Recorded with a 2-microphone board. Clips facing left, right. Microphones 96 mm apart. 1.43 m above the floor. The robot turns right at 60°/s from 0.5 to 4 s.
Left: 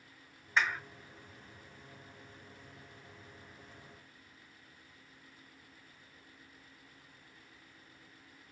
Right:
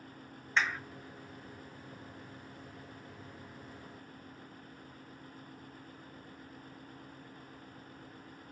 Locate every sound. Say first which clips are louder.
0.6 s a clap: left 1 dB; 10° left (ahead or behind), 1.6 m; by 0.8 s 20° left (ahead or behind), 1.6 m